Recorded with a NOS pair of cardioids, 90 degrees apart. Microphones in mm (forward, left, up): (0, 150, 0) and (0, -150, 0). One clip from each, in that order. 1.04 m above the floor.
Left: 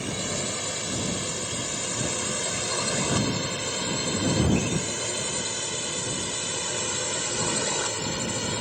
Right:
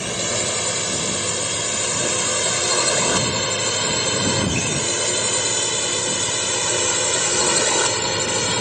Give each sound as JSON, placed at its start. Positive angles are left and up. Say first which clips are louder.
{"t": 0.0, "sound": "a drone", "louder": "right 7 dB", "azimuth_deg": -55}